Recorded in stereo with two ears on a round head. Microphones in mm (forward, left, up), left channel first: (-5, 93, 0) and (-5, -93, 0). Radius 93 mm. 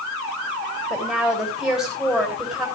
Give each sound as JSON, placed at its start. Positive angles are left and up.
{"t": 0.9, "sound": "a woman speaking", "side_deg": 0, "distance_m": 3.5}